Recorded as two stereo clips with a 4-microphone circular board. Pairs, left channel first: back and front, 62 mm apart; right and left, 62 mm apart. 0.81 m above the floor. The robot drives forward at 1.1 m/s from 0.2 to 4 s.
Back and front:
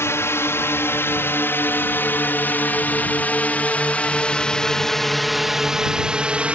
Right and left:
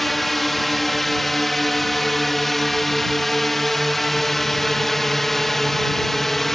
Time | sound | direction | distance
0.0 | a drone | 175° right | ?